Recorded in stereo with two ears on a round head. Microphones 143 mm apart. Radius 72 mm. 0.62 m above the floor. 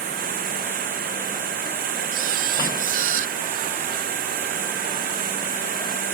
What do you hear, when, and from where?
0.0 s running water: 60° right (ahead or behind)
2.1 s a camera shutter: 50° right (ahead or behind)